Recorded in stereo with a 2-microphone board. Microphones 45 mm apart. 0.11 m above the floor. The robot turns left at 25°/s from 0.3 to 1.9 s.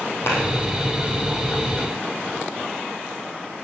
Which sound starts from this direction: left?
A clap, at 0.3 s.